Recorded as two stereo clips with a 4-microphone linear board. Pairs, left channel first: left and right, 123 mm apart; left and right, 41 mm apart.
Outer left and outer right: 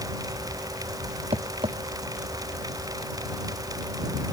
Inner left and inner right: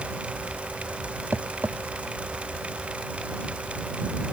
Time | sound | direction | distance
1.3 | tapping | 55° right (ahead or behind) | ?